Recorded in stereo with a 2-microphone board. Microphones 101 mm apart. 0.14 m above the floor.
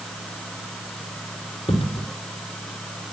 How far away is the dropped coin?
About 3 m.